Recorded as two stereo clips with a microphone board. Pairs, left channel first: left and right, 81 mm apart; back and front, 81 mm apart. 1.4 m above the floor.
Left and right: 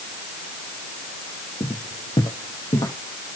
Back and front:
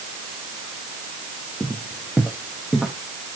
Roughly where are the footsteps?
Left.